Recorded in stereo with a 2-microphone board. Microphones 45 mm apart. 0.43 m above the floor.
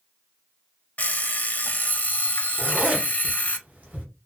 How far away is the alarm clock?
About 0.6 m.